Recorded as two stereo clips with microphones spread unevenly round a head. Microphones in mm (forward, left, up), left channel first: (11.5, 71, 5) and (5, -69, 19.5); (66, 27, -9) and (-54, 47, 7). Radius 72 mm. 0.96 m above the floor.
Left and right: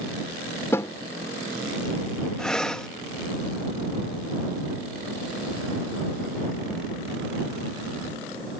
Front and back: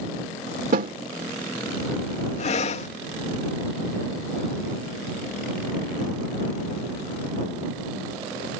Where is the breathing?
5° left.